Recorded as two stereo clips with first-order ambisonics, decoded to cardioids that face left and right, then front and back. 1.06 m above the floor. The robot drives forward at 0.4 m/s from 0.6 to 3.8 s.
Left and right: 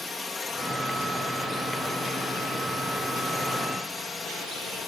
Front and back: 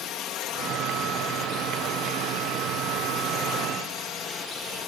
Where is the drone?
25° left.